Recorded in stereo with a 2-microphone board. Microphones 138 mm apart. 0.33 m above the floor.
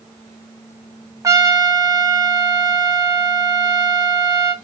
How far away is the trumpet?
About 0.8 m.